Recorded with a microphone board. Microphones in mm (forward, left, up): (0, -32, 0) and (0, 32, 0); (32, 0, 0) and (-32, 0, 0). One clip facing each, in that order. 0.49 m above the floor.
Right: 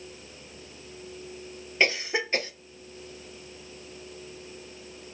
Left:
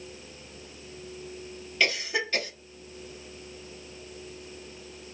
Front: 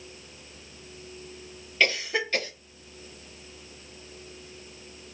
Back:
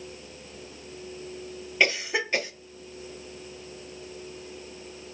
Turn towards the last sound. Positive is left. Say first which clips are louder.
# right 2 dB, back 1 dB
turn(degrees=-125)